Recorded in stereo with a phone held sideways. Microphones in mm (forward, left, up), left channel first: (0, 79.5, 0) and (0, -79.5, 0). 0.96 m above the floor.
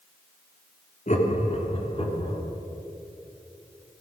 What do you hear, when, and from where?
1.1 s laughter: 50° left (ahead or behind), 1.8 m; by 2.4 s 35° left (ahead or behind), 2.5 m